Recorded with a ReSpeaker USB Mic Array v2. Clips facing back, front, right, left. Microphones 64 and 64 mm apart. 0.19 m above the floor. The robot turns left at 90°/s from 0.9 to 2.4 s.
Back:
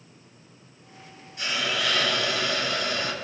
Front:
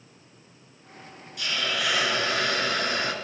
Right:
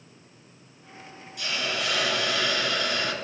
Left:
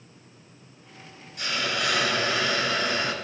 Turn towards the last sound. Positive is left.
turn(degrees=35)